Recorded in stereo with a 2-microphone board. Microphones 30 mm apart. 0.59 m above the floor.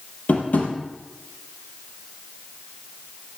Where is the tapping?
65° left (ahead or behind), 4 m.